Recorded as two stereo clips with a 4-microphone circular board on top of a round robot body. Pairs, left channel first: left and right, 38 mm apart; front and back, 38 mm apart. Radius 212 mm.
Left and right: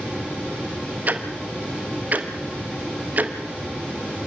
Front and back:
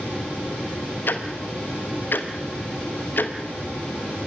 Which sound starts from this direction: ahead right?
Ticking, at 1.1 s.